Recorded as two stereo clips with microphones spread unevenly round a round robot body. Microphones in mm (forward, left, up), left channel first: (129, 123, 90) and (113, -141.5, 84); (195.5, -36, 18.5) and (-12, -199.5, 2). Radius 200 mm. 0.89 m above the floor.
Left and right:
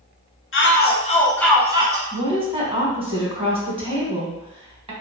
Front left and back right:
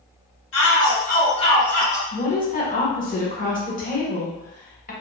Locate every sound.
0.5 s a shout: 60° left, 0.9 m; by 2.0 s 65° right, 0.7 m
2.1 s a woman speaking: 25° right, 1.4 m